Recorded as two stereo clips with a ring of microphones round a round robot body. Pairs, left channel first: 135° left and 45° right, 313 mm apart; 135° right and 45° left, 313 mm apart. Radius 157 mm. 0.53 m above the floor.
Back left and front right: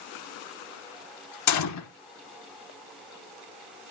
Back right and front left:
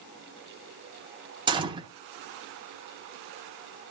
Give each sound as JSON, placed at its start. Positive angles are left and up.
{"t": 1.5, "sound": "a gunshot", "azimuth_deg": 120, "distance_m": 1.1}